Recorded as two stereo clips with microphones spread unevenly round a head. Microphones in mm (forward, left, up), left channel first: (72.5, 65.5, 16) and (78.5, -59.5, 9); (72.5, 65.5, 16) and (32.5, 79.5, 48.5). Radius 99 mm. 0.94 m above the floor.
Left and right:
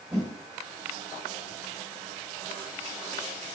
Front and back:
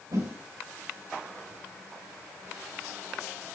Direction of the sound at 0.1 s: 175° right.